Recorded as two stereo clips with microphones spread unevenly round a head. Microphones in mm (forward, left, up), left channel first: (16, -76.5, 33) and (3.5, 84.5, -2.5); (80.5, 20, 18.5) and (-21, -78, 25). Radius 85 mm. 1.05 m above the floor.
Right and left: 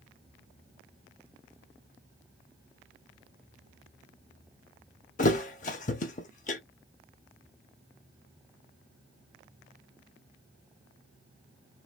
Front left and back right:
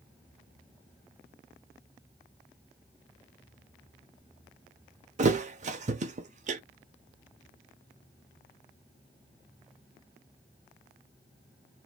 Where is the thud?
110° right, 1.1 m.